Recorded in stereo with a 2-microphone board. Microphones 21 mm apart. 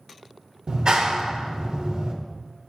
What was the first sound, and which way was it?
A clap, 45° right (ahead or behind).